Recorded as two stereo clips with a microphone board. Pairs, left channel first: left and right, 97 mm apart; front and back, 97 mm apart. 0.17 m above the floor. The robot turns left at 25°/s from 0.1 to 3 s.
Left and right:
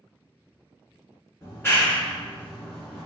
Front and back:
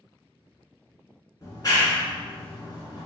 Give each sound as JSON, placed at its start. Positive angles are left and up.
{"t": 1.4, "sound": "a clap", "azimuth_deg": 40, "distance_m": 1.2}